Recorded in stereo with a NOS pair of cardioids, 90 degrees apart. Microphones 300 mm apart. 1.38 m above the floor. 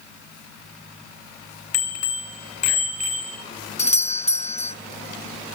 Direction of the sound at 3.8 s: 25° left.